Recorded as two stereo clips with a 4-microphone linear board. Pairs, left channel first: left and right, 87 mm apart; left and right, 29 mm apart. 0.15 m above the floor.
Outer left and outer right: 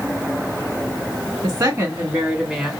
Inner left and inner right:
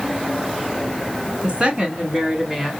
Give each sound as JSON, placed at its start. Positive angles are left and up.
{"t": 1.4, "sound": "a woman speaking", "side_deg": -30, "distance_m": 1.4}